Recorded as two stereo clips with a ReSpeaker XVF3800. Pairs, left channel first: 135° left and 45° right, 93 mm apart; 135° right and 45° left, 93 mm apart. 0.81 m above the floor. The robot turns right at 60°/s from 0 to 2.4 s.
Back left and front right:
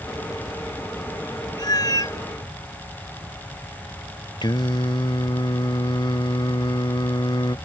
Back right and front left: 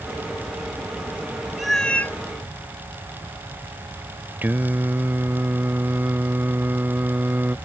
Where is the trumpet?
No trumpet in this recording.